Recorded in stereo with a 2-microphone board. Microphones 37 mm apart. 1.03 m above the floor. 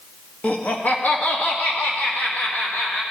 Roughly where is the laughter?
Left.